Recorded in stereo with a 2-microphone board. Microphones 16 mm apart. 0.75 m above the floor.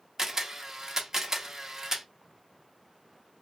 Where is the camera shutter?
25° right (ahead or behind), 0.9 m.